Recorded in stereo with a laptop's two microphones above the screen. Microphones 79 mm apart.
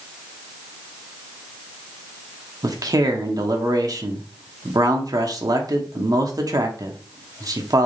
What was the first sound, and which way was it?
A man speaking, 50° right (ahead or behind).